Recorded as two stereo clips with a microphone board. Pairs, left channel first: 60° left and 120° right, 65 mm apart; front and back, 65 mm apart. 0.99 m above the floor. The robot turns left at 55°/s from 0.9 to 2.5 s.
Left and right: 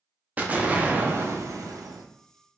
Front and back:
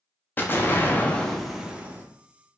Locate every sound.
0.4 s an explosion: 60° right, 0.5 m; by 2.0 s 120° right, 0.5 m